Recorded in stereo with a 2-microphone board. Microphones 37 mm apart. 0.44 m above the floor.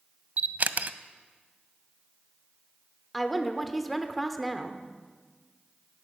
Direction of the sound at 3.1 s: 5° left (ahead or behind).